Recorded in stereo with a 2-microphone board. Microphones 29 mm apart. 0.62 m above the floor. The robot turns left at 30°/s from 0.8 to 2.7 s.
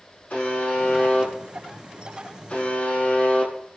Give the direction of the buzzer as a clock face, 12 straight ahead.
8 o'clock.